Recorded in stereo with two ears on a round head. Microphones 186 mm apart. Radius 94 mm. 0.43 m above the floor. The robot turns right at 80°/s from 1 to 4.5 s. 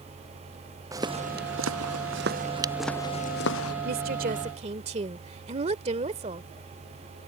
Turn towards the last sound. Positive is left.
turn(degrees=-45)